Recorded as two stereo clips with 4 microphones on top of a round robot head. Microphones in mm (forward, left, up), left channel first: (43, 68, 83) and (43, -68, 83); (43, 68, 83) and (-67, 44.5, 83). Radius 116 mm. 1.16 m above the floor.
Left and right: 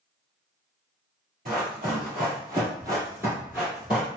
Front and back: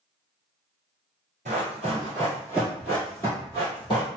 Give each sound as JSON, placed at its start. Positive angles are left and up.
{"t": 1.4, "sound": "running footsteps", "azimuth_deg": -130, "distance_m": 1.4}